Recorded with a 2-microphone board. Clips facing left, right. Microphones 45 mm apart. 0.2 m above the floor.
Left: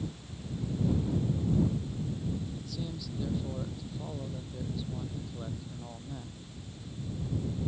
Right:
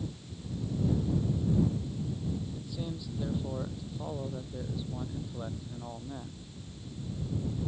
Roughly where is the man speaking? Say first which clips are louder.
Right 1 dB; centre.